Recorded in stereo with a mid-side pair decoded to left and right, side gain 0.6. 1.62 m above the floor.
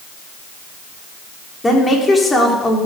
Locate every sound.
1.6 s a woman speaking: 15° left, 4.5 m